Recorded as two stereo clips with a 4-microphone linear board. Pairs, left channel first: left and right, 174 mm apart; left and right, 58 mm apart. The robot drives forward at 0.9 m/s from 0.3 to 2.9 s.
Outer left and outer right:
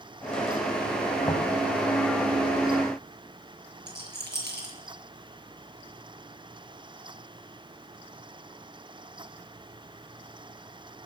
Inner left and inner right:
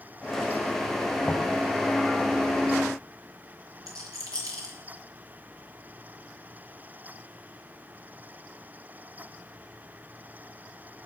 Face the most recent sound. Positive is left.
turn(degrees=-75)  # may be behind; listen again after turning